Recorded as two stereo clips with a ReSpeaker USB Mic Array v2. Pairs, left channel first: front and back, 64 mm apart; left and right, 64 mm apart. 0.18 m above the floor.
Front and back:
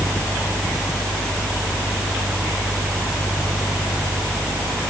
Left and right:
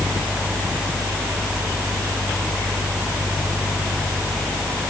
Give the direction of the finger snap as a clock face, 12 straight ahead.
I don't hear a finger snap.